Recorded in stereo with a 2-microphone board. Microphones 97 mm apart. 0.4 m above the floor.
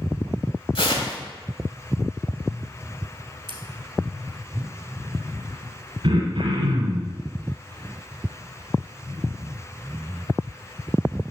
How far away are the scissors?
About 1.4 m.